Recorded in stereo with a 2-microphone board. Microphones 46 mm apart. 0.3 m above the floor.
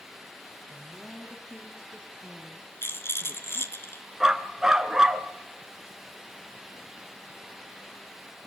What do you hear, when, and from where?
0.6 s a woman speaking: 40° left (ahead or behind), 5.5 m; by 3.8 s 20° left (ahead or behind), 8 m
2.8 s a rattle: 60° left (ahead or behind), 2.5 m
4.2 s a dog barking: 10° right (ahead or behind), 1.4 m